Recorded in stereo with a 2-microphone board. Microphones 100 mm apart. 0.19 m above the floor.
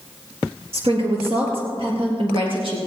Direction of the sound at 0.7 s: 70° right (ahead or behind).